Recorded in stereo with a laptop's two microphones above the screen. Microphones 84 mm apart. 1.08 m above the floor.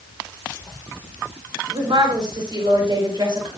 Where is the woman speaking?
60° right (ahead or behind), 3.5 m; by 3.5 s 55° right (ahead or behind), 5 m.